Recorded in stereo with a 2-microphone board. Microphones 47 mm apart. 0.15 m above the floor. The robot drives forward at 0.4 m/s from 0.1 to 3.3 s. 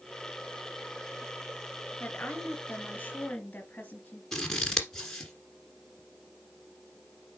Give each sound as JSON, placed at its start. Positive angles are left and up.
{"t": 2.0, "sound": "a woman speaking", "side_deg": 35, "distance_m": 2.5}
{"t": 4.3, "sound": "scissors", "side_deg": 10, "distance_m": 1.7}